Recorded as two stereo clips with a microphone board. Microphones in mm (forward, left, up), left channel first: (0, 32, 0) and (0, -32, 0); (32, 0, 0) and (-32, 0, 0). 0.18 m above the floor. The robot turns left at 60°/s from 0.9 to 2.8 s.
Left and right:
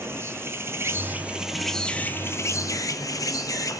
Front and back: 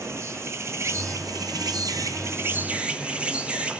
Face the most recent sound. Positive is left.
turn(degrees=110)